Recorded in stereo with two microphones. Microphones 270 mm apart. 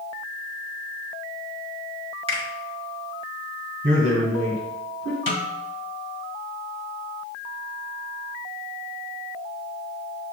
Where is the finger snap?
20° right (ahead or behind), 1.2 m.